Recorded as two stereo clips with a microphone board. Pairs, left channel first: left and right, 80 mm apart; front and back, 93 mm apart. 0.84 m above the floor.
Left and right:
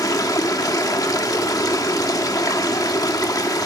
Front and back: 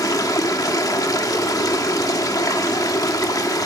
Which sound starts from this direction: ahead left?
Running water, at 0.0 s.